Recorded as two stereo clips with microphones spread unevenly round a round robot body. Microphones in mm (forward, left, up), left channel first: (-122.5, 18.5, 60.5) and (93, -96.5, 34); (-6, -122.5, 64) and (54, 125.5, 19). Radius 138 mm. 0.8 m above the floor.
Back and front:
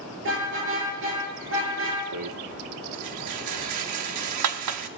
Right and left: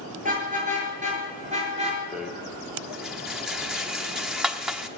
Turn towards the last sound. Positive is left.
turn(degrees=-10)